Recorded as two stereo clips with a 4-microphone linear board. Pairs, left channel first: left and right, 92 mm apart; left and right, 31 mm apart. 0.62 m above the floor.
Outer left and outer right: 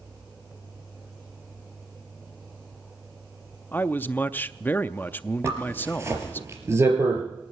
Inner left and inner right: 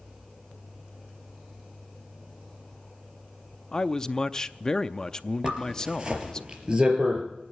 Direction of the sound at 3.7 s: 20° left (ahead or behind).